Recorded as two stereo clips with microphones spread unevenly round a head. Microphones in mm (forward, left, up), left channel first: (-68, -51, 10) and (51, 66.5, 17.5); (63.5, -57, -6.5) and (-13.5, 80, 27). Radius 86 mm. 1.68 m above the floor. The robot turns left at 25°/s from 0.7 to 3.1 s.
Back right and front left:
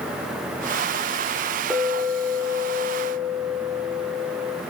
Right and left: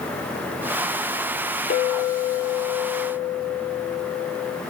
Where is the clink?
40° right, 0.6 m; by 4.6 s 75° right, 0.6 m.